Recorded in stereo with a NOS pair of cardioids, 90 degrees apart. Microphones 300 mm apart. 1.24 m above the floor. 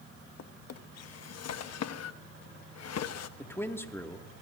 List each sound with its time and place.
0.4 s a drawer: 65° left, 1.1 m
3.4 s a man speaking: 10° left, 2 m